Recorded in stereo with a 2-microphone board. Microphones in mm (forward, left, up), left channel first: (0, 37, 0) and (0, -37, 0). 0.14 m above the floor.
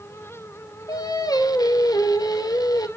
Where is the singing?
65° left (ahead or behind), 0.9 m.